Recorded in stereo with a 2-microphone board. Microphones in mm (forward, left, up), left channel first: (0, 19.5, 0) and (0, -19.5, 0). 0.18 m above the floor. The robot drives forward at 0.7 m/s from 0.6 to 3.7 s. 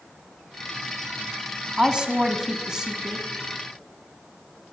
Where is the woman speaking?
20° right (ahead or behind), 1.0 m; by 3.3 s 15° right (ahead or behind), 1.4 m.